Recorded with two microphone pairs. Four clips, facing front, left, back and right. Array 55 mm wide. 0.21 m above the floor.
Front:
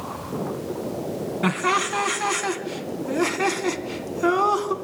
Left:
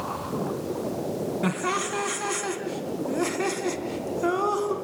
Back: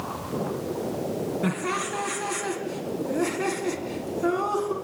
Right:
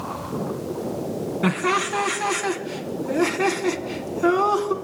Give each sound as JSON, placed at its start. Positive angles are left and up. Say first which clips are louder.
{"t": 1.4, "sound": "laughter", "louder": "right 7 dB, front 10 dB", "azimuth_deg": -25, "distance_m": 1.9}